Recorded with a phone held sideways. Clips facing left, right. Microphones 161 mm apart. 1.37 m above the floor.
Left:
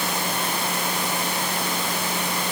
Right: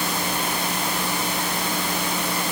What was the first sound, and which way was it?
Only background noise.